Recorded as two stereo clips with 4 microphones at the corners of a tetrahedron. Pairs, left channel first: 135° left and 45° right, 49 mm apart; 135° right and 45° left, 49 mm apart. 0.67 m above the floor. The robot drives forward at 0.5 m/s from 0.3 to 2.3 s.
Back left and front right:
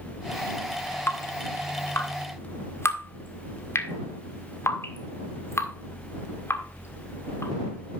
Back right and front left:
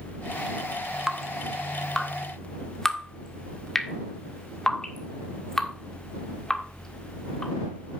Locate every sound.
1.1 s dripping: 125° left, 1.1 m; by 7.5 s 145° left, 1.5 m